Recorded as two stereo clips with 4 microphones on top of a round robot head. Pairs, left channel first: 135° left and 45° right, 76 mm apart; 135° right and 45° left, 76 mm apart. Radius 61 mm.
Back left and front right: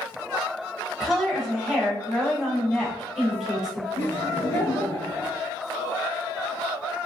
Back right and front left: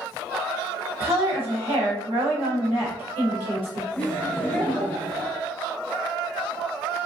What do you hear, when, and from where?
1.0 s a woman speaking: 40° left, 1.0 m
4.0 s laughter: 170° left, 0.9 m